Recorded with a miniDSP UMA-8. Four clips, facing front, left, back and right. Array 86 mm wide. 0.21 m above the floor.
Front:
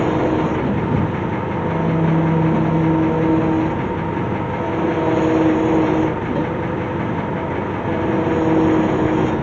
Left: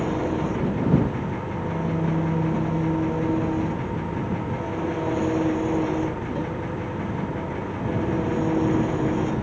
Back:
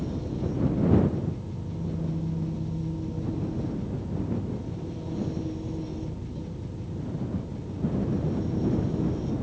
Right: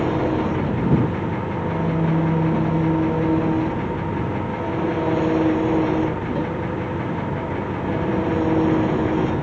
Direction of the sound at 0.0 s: 15° right.